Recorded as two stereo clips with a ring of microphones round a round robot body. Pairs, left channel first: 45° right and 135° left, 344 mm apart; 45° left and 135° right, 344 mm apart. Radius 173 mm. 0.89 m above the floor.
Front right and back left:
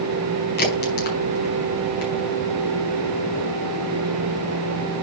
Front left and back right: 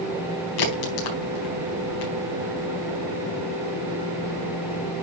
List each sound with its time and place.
0.6 s a crack: 20° left, 4.5 m